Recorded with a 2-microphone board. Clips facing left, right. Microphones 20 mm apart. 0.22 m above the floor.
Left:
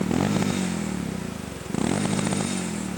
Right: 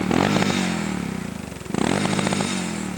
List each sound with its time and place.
0.0 s a motorcycle: 35° right (ahead or behind); by 3.0 s 25° right (ahead or behind)